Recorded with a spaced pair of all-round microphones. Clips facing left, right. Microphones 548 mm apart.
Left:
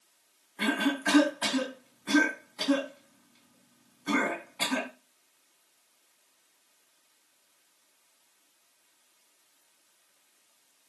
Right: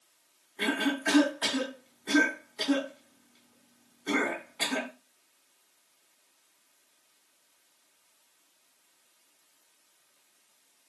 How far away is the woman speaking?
I don't hear a woman speaking.